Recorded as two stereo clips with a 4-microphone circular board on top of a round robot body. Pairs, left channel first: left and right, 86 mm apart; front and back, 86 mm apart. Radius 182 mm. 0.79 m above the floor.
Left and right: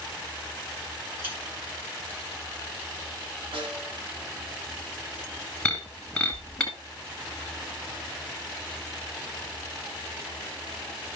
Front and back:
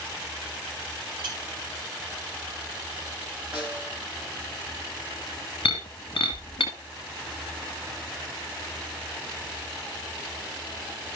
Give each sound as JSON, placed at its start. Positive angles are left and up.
{"t": 1.2, "sound": "a clink", "azimuth_deg": -160, "distance_m": 4.5}
{"t": 3.5, "sound": "a snare drum", "azimuth_deg": -105, "distance_m": 2.0}
{"t": 5.7, "sound": "breaking glass", "azimuth_deg": 5, "distance_m": 0.9}